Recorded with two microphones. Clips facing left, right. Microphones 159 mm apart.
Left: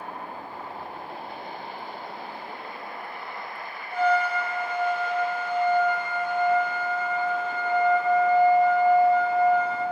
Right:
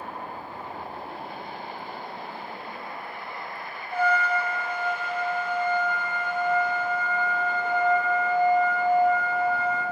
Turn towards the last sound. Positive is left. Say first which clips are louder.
# left 2 dB
turn(degrees=-15)  # may be behind; listen again after turning